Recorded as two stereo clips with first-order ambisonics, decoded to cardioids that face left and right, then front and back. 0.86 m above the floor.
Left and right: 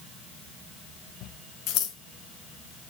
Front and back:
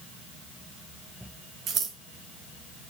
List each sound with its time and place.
1.7 s scissors: 125° left, 3 m